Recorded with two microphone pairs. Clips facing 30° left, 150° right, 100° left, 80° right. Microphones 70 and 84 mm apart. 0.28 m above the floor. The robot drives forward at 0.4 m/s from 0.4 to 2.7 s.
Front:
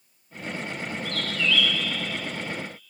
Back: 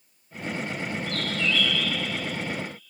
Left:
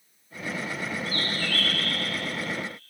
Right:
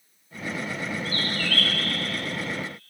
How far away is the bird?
About 1.3 m.